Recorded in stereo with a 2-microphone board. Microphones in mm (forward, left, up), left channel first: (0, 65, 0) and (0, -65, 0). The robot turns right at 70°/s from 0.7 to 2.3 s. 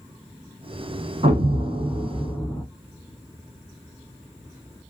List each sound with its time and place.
1.2 s an explosion: 70° right, 0.8 m; by 2.6 s 5° left, 0.8 m